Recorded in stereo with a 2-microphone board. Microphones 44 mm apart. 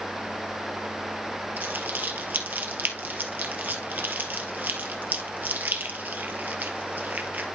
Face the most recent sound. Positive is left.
turn(degrees=-40)  # may be behind; listen again after turning